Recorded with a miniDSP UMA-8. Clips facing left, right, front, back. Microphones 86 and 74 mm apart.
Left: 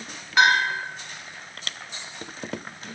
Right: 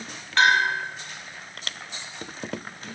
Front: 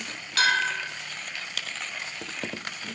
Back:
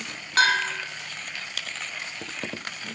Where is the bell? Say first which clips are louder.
Even, back 2 dB; 165° left, 0.7 m.